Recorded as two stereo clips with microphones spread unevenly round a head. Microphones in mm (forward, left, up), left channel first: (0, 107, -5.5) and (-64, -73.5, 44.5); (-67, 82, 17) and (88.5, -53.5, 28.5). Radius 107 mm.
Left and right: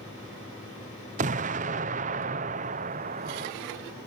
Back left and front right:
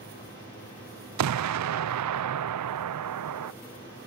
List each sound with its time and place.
1.2 s an explosion: 50° right